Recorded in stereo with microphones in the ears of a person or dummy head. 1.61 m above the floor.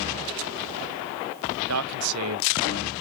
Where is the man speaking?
80° right, 0.6 m.